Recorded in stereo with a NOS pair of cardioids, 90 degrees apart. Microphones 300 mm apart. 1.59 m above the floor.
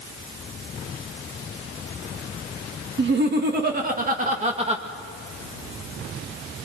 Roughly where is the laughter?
Ahead right.